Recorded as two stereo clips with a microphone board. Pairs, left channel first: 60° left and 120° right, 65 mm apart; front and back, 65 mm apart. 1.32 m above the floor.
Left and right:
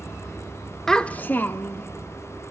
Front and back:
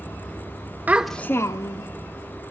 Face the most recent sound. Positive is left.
turn(degrees=0)